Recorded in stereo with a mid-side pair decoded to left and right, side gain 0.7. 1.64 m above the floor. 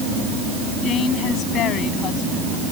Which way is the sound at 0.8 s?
50° left.